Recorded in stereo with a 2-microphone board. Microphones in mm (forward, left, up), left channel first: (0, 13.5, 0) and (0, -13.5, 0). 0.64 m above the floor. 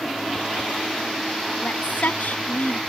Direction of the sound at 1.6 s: 75° left (ahead or behind).